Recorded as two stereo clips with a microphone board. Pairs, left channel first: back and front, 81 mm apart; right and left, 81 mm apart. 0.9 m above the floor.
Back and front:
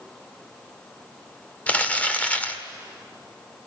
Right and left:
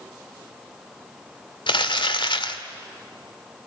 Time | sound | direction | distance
1.7 | crumpling | 105° right | 1.8 m